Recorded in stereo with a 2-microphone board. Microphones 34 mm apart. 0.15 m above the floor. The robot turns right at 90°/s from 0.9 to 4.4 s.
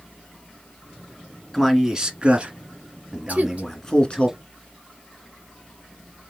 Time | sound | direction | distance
1.5 | a man speaking | 175° left | 1.3 m
3.3 | a woman speaking | 60° right (ahead or behind) | 2.5 m